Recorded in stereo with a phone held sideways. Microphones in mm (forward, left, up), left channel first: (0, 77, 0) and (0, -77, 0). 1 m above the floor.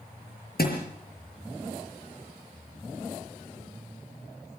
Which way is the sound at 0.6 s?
80° left.